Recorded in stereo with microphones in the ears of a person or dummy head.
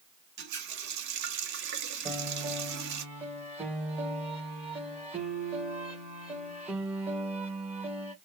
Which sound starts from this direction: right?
A running tap, at 0.4 s.